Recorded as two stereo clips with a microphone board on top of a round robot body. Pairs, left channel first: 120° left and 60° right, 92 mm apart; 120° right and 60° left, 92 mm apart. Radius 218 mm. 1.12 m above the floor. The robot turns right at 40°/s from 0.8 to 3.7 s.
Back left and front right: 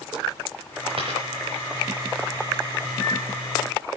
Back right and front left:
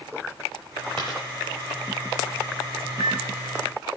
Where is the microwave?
65° right, 3.5 m; by 3.2 s 55° right, 3.5 m.